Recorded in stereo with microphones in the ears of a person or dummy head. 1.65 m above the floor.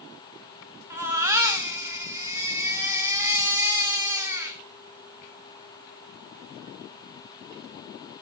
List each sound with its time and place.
0.9 s a baby crying: 15° right (ahead or behind), 1.6 m